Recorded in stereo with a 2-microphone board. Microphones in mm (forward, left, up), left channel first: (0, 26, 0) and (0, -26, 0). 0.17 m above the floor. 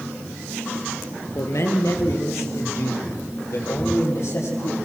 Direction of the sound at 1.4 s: 70° left (ahead or behind).